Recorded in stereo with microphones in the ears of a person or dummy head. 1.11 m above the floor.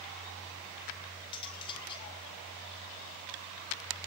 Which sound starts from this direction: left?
Cutlery clinking, at 1.3 s.